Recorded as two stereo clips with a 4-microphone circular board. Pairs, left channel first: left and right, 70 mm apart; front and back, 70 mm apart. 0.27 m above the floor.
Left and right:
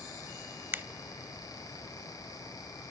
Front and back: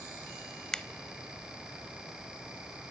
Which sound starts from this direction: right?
A finger snap, at 0.7 s.